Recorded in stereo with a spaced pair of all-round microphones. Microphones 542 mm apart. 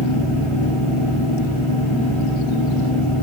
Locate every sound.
0.0 s a fan: 65° right (ahead or behind), 2.5 m